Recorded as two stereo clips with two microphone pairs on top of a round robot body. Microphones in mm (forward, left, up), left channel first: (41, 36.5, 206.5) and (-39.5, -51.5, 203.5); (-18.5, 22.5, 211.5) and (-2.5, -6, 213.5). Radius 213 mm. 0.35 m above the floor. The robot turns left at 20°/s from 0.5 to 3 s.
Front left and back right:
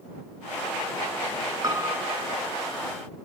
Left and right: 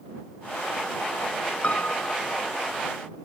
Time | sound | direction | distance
1.6 | a piano | 165° left | ?